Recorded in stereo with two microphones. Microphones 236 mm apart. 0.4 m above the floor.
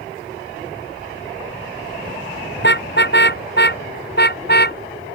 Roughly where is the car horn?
Left.